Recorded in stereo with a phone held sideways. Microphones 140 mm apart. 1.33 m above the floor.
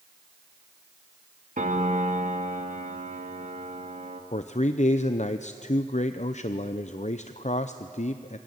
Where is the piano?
70° right (ahead or behind), 1.9 m.